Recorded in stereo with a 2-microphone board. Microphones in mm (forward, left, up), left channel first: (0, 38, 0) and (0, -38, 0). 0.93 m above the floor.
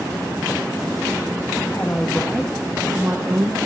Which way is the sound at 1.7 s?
30° left (ahead or behind).